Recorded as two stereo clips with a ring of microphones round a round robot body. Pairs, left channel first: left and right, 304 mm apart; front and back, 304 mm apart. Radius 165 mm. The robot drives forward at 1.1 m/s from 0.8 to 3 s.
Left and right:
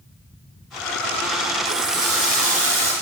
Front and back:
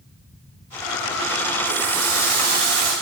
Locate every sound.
1.6 s a running tap: 140° right, 1.7 m; by 2.9 s 160° right, 3 m